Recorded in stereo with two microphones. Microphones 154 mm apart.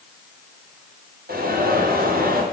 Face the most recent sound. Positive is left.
turn(degrees=-75)  # may be behind; listen again after turning